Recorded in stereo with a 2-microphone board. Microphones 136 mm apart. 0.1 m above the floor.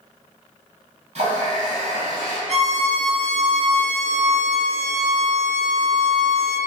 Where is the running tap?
55° right (ahead or behind), 1.6 m.